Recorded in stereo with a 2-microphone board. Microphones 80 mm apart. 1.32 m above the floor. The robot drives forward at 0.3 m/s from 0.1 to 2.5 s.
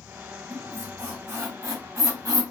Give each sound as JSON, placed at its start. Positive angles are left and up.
{"t": 0.5, "sound": "a squeak", "side_deg": -35, "distance_m": 1.2}